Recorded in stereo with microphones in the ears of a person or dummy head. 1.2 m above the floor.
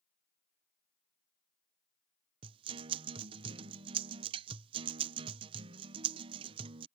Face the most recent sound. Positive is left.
turn(degrees=-25)  # may be behind; listen again after turning